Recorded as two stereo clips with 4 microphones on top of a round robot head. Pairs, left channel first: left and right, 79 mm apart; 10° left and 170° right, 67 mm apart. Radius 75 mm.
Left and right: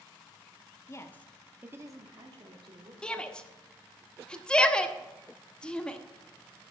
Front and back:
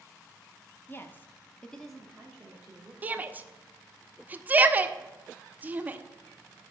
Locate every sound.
0.9 s a woman speaking: 55° left, 1.2 m; by 2.9 s 95° right, 2 m
3.0 s a shout: 155° left, 1.0 m